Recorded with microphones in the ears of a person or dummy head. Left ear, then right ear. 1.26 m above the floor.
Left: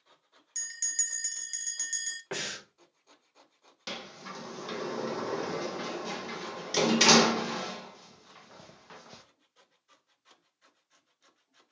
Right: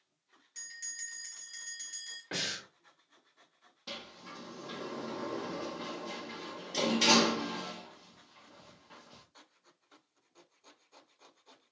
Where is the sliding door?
60° left (ahead or behind), 0.5 m.